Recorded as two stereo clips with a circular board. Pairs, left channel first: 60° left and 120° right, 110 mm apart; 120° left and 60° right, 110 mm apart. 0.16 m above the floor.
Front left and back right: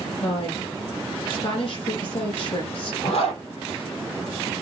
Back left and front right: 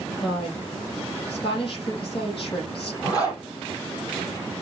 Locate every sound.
0.2 s a woman speaking: 80° left, 4.5 m
3.0 s a zipper: 65° left, 5.5 m